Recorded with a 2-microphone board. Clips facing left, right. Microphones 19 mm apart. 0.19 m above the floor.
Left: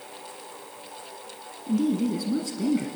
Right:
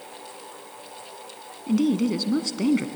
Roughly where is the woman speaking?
Right.